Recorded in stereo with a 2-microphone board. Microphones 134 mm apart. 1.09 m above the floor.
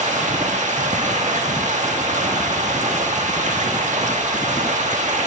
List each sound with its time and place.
0.0 s running water: 65° right (ahead or behind), 1.4 m